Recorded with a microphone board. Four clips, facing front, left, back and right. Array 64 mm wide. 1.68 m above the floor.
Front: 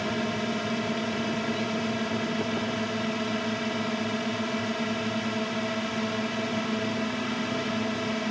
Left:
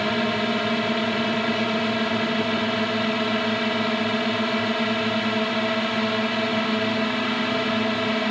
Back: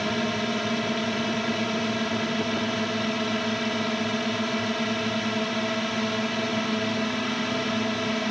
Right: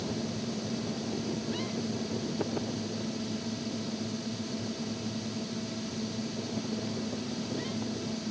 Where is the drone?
100° left.